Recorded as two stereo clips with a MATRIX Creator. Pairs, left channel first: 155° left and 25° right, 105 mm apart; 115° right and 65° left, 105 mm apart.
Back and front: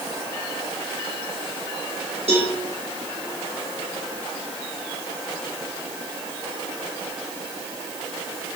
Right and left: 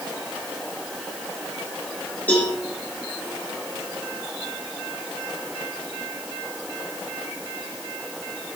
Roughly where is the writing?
No writing in this recording.